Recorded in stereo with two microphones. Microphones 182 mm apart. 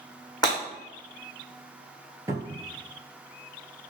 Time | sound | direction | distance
0.4 | breaking glass | 20° left (ahead or behind) | 1.8 m
2.3 | a cupboard door | 15° right (ahead or behind) | 0.6 m